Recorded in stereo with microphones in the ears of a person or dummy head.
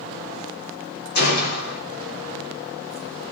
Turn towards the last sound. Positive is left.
turn(degrees=55)  # may be behind; listen again after turning